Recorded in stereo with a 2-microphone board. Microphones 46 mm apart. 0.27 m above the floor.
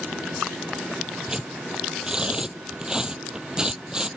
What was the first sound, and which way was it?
Tearing paper, 15° right (ahead or behind).